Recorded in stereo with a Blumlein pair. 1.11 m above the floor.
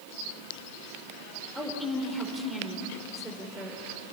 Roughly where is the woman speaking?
Ahead.